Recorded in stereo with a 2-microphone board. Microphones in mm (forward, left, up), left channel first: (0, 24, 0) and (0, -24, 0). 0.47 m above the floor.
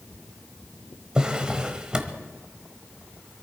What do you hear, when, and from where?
1.1 s a drawer: 20° right (ahead or behind), 1.2 m